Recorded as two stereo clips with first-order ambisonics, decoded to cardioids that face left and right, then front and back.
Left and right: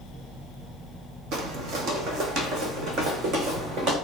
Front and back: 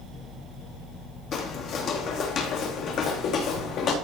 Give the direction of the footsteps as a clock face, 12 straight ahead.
2 o'clock.